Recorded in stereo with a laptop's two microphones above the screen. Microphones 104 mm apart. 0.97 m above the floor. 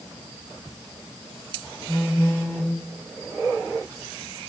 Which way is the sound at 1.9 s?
20° left (ahead or behind).